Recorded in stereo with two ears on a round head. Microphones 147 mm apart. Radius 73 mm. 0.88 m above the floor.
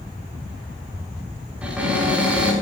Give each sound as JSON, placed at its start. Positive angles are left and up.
{"t": 1.6, "sound": "a cupboard door", "side_deg": -10, "distance_m": 5.0}